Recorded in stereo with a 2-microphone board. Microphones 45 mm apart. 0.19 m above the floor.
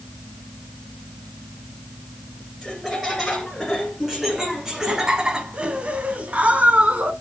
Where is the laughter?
5° left (ahead or behind), 2.5 m; by 7.1 s 30° right (ahead or behind), 1.5 m.